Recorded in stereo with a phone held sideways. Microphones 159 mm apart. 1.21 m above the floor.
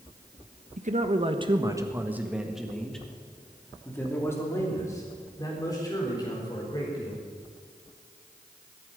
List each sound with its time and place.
0.8 s a man speaking: 55° right (ahead or behind), 1.3 m; by 7.2 s 25° left (ahead or behind), 5 m